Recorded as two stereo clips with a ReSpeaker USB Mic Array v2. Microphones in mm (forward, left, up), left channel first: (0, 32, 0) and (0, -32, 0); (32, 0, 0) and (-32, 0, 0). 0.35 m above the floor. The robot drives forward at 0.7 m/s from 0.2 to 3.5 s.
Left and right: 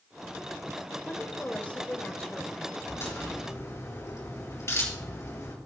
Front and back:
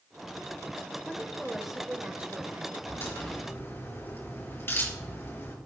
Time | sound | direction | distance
1.1 | a woman speaking | 55° left | 1.4 m
2.9 | a crack | 40° left | 5 m